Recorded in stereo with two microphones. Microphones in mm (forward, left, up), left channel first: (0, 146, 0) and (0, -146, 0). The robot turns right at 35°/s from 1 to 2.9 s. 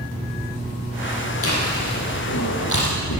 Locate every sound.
1.4 s chewing: 50° left (ahead or behind), 6.5 m; by 3.2 s 75° left (ahead or behind), 6.5 m